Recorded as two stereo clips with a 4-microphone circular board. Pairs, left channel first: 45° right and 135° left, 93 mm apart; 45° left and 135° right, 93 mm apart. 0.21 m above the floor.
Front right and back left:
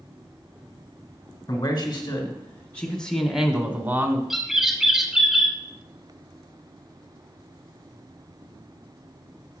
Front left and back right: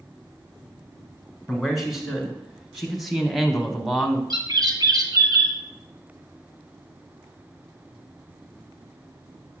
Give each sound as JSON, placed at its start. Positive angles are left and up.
{"t": 1.5, "sound": "a man speaking", "azimuth_deg": -50, "distance_m": 1.7}
{"t": 4.3, "sound": "a bird", "azimuth_deg": -140, "distance_m": 1.1}